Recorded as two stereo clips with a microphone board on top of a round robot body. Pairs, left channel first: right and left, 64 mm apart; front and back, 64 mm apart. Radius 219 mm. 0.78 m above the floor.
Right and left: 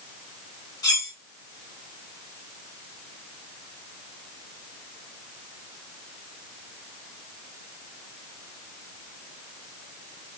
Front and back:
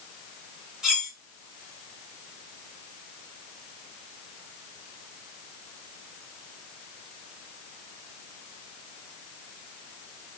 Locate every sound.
0.8 s cutlery clinking: 105° right, 2.5 m